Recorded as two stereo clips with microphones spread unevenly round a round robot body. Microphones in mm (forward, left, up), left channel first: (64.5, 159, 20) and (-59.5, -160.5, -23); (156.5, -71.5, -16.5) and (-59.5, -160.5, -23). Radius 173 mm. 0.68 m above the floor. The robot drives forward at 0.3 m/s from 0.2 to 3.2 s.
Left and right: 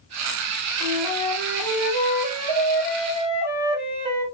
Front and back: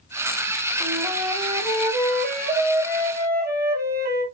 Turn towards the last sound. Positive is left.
turn(degrees=-110)